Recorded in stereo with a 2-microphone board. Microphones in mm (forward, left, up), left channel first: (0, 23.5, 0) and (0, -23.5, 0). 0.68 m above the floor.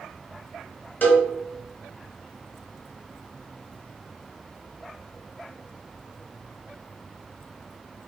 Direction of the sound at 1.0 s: 35° left (ahead or behind).